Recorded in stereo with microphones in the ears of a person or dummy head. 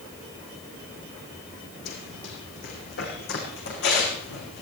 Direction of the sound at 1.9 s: 60° left (ahead or behind).